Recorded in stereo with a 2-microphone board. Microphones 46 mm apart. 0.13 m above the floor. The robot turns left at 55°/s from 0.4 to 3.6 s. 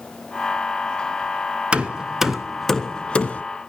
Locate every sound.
1.7 s hammering: 25° right (ahead or behind), 0.9 m; by 3.4 s 30° left (ahead or behind), 0.9 m